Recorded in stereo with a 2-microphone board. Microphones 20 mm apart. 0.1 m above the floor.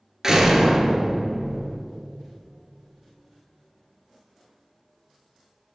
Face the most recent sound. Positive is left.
turn(degrees=-25)  # may be behind; listen again after turning